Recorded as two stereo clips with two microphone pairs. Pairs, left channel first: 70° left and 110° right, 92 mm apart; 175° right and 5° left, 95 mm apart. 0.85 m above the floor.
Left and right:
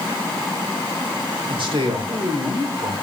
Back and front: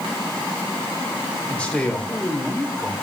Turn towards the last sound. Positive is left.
turn(degrees=-95)